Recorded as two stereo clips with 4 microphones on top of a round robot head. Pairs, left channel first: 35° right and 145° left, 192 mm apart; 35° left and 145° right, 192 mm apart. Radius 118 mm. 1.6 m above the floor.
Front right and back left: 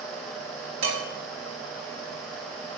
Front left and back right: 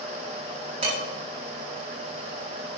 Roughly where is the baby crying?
No baby crying in this recording.